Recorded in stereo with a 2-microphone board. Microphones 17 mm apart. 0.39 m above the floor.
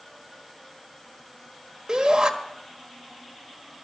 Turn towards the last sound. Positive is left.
turn(degrees=-45)  # may be behind; listen again after turning